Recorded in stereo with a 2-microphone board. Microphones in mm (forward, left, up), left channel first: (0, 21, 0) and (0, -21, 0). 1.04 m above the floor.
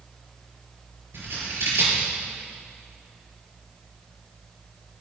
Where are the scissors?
75° right (ahead or behind), 6 m.